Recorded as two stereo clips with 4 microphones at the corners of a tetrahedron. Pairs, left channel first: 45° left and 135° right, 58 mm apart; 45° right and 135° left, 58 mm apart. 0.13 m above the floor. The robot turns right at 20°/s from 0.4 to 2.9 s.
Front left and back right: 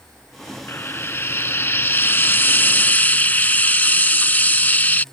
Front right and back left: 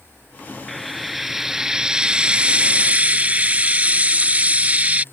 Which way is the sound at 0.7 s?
40° left.